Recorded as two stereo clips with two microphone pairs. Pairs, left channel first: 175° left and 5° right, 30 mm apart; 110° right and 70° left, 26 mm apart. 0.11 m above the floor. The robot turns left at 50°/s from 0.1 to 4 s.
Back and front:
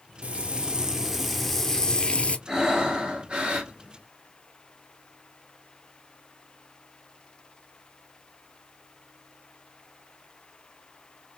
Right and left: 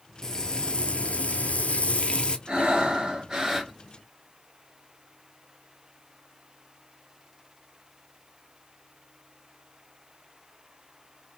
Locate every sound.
0.2 s frying: 45° right, 0.5 m; by 2.4 s 155° right, 0.5 m
2.5 s breathing: 55° left, 1.2 m; by 3.7 s 5° right, 1.2 m